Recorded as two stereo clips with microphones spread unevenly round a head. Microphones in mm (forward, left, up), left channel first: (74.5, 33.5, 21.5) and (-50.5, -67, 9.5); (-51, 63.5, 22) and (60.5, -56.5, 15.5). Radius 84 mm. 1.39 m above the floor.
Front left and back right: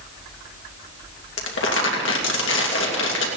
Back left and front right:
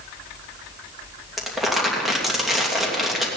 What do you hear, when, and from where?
1.4 s crumpling: 40° left, 2.5 m